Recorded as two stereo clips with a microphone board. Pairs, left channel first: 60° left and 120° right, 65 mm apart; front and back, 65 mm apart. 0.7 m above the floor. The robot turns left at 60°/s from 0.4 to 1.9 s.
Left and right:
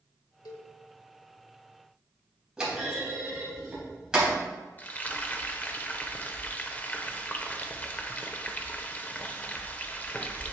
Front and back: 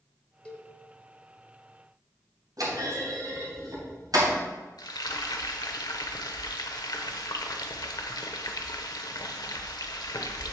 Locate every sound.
0.5 s a cowbell: 70° left, 1.3 m; by 0.7 s 55° left, 1.3 m
2.6 s a clunk: 160° left, 3.5 m
4.8 s frying: 5° right, 0.8 m